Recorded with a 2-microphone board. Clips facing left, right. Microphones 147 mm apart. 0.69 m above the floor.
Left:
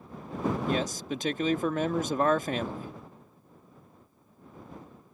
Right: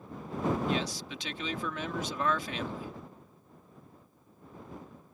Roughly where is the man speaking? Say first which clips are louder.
Left 3 dB; left.